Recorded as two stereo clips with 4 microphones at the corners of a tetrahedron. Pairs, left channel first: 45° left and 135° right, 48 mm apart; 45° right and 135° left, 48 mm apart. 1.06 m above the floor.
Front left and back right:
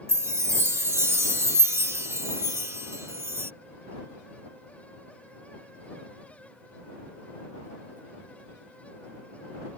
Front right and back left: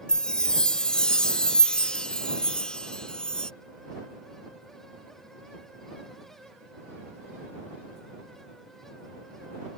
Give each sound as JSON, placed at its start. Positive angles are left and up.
{"t": 0.1, "sound": "a chime", "azimuth_deg": -115}